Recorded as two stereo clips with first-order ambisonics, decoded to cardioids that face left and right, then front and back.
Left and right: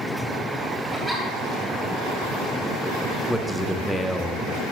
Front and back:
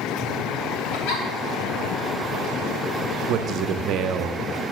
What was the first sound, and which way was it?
A giggle, 10° right.